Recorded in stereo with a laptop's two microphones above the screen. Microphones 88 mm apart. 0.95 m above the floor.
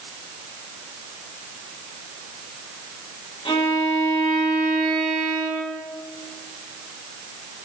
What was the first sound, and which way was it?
A violin, 85° left.